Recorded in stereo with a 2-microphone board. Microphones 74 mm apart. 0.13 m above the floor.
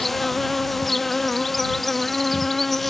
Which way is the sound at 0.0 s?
5° left (ahead or behind).